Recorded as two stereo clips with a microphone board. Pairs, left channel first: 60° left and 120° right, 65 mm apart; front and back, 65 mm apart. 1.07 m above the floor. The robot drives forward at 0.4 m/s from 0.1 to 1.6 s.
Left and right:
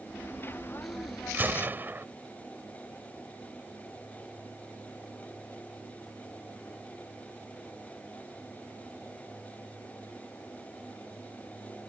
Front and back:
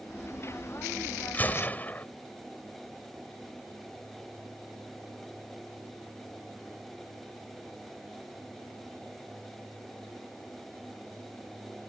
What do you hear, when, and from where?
1.3 s a gunshot: 60° right; by 2.1 s 65° right